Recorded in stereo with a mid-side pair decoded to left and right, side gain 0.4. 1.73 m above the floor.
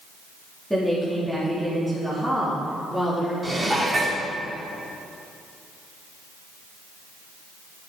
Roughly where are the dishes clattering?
Ahead right.